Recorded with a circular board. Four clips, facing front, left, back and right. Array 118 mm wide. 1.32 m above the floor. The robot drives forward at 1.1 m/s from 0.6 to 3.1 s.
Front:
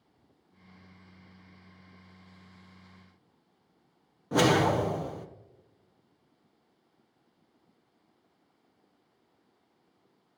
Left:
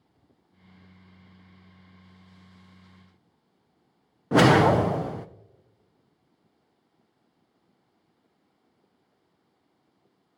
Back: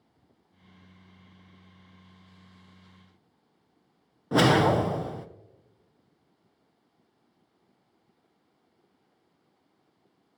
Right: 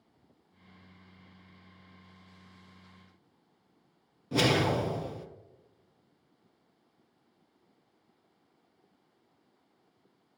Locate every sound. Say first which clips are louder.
4.3 s a whoosh: left 9 dB, back 3 dB; 100° left, 0.5 m